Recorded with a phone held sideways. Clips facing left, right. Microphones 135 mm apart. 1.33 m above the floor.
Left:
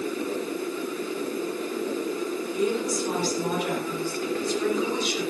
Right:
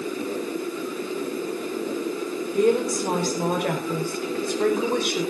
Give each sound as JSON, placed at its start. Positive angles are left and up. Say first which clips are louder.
{"t": 2.5, "sound": "a woman speaking", "louder": "right 7 dB", "side_deg": -65, "distance_m": 4.5}